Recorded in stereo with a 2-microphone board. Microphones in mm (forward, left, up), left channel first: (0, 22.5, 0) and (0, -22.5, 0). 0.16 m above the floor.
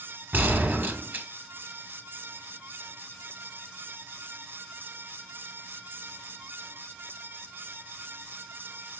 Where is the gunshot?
45° right (ahead or behind), 1.5 m.